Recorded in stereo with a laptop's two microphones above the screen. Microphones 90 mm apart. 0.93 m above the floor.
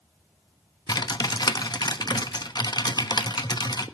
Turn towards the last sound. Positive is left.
turn(degrees=50)  # may be behind; listen again after turning